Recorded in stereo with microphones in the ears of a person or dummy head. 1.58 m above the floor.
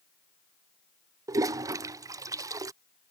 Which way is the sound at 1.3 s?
20° right (ahead or behind).